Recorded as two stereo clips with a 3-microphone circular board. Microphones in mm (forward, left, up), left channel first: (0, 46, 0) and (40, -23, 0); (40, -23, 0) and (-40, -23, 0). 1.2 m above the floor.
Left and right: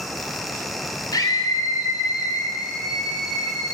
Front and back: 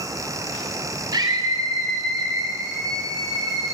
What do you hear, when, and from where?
1.1 s a scream: 155° left, 3 m; by 3.7 s 135° left, 4 m